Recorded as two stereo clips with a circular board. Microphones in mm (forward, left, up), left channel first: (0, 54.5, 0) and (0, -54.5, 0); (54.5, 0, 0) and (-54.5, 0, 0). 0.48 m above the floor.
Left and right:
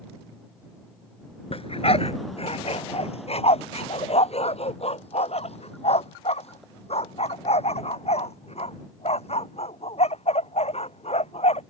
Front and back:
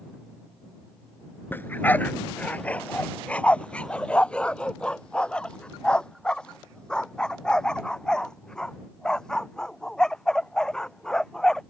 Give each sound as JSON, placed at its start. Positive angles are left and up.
{"t": 1.5, "sound": "a dog barking", "azimuth_deg": 70}